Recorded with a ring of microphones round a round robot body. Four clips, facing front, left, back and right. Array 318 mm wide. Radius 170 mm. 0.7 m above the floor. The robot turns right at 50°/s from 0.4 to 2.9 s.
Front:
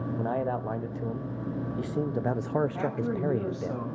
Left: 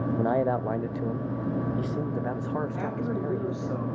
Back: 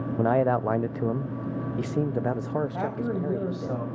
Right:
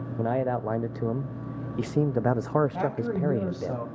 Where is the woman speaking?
155° right, 4.5 m; by 3.9 s 145° right, 4.5 m.